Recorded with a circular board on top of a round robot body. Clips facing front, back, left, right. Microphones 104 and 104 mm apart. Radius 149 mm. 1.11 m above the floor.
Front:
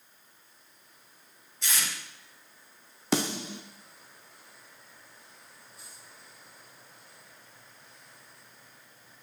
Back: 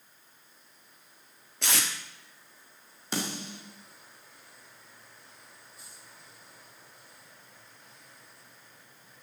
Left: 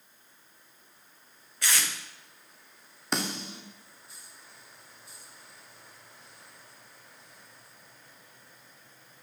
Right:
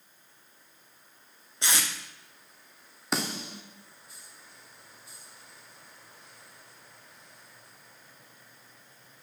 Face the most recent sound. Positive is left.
turn(degrees=0)